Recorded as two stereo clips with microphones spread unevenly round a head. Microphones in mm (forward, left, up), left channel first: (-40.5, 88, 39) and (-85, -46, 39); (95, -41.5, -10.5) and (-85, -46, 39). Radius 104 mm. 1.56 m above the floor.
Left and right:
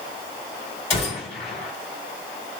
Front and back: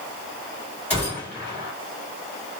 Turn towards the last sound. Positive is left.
turn(degrees=95)